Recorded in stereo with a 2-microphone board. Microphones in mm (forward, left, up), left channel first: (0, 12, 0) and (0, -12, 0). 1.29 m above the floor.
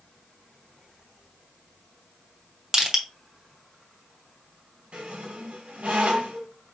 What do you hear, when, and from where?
2.7 s crushing: 15° right (ahead or behind), 1.1 m
4.9 s a squeak: 60° right (ahead or behind), 2 m